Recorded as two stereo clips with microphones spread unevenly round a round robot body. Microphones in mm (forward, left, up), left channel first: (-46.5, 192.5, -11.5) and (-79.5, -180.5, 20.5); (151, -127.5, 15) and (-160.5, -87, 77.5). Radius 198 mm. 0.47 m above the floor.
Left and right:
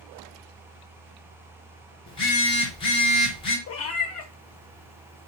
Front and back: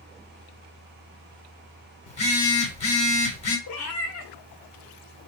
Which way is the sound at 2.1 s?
25° left.